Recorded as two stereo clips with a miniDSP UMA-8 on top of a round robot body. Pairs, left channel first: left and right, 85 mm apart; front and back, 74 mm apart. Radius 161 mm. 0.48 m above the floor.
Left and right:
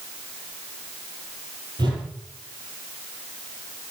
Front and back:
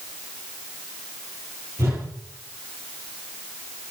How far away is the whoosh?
About 6.5 m.